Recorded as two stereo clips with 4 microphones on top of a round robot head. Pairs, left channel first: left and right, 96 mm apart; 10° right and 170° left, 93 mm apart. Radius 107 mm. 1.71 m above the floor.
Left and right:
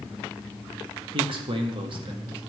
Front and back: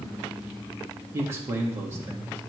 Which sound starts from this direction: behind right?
A man speaking, at 1.1 s.